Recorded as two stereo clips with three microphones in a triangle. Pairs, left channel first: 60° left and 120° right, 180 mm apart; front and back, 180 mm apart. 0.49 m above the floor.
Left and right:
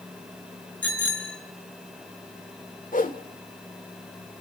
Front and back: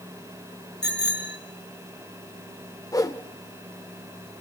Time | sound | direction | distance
0.8 | a bicycle bell | 20° right | 5.5 m
2.9 | a whoosh | 65° left | 1.8 m